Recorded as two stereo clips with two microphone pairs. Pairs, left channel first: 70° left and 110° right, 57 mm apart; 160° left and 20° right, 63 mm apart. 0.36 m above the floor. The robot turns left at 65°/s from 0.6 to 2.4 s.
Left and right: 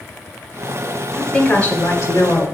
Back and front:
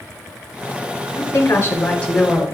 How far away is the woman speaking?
About 2.5 m.